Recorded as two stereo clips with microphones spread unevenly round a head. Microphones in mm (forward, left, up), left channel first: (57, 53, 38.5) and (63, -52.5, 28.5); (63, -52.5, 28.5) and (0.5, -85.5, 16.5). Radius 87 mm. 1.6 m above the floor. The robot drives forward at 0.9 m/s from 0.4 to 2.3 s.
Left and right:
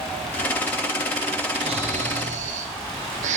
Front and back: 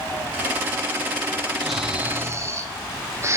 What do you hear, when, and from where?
1.6 s snoring: 55° right, 0.9 m; by 3.4 s 100° right, 0.8 m